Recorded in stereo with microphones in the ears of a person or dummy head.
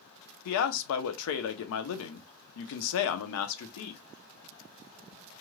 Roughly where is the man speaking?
Left.